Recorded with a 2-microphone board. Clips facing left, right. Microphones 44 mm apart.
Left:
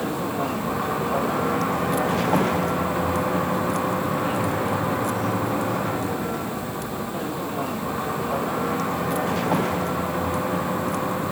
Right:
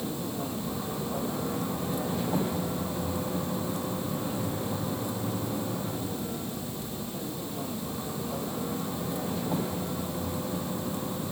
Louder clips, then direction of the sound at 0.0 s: Left 8 dB; 90° left.